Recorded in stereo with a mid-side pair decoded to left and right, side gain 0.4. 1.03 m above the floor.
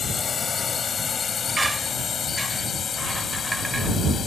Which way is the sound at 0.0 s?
45° left.